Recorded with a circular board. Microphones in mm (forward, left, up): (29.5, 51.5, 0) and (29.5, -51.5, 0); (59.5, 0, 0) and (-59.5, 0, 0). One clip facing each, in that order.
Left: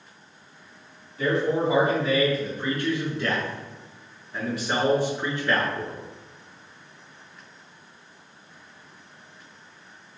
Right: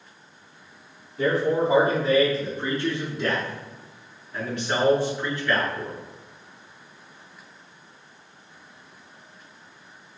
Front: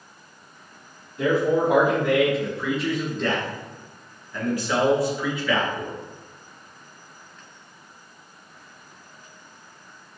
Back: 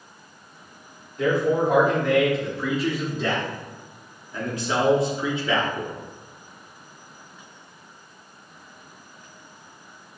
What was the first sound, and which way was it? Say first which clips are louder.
A man speaking: right 1 dB, front 1 dB; 75° right.